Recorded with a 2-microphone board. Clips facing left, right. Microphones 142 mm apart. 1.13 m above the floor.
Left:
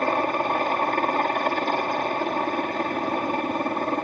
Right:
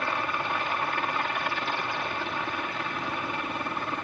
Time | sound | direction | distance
0.0 | a helicopter | 45° left (ahead or behind) | ?